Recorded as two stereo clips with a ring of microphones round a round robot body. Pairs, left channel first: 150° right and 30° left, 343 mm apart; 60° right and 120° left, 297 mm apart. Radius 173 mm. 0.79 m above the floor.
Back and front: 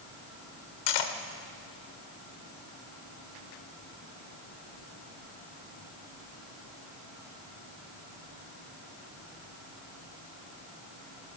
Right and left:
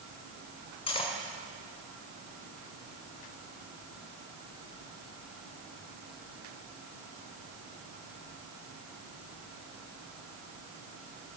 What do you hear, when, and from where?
0.9 s cutlery clinking: 135° right, 1.6 m